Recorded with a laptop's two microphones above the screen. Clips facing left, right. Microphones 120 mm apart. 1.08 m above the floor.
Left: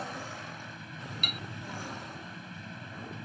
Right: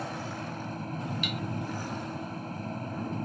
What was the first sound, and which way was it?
A fan, 45° right (ahead or behind).